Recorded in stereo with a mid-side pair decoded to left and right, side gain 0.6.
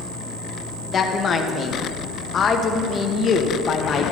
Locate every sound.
0.9 s a woman speaking: 35° left, 1.4 m